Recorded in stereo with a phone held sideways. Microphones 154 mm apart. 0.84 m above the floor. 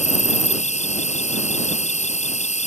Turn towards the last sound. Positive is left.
turn(degrees=50)  # may be behind; listen again after turning